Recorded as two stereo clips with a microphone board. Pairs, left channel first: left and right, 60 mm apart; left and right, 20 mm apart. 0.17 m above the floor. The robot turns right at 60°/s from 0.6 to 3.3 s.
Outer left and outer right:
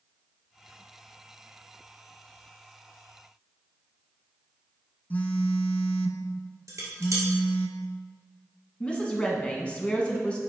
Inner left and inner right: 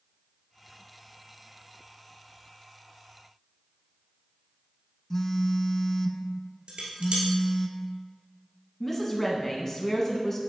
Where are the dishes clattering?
65° right (ahead or behind), 1.7 m.